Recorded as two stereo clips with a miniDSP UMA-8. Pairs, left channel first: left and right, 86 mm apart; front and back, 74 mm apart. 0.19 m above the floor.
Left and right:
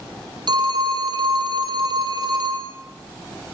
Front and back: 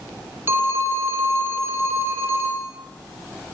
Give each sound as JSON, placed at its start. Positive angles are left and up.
{"t": 0.5, "sound": "a phone ringing", "azimuth_deg": -125, "distance_m": 5.0}